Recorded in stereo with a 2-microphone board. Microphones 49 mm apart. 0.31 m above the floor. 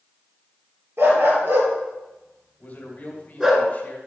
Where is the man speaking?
35° left (ahead or behind), 1.9 m.